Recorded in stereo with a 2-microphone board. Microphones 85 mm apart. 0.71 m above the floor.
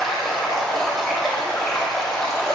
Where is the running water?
5° left (ahead or behind), 3 m.